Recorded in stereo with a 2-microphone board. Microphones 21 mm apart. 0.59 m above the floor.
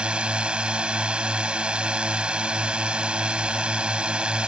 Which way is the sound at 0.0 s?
70° right (ahead or behind).